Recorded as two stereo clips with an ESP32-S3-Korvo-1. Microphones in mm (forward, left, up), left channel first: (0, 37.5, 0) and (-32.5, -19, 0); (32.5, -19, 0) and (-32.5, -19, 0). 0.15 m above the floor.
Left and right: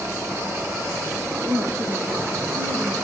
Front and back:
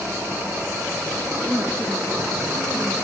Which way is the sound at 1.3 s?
120° right.